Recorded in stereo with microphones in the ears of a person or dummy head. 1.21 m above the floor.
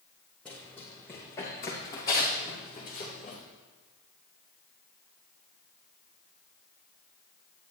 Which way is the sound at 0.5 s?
5° left (ahead or behind).